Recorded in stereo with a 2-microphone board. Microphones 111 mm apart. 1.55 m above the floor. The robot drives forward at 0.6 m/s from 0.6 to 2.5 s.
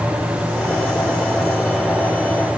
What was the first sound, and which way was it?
Only background noise.